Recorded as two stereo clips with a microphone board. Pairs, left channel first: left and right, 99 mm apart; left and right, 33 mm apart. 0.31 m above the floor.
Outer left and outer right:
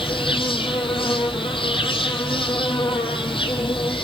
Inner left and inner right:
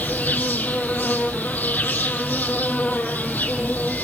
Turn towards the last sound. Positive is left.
turn(degrees=60)  # may be behind; listen again after turning